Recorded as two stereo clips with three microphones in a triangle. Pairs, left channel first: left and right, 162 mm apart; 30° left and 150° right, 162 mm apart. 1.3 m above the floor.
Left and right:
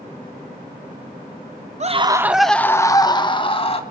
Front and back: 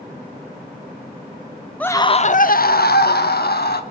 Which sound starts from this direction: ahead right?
A scream, at 1.8 s.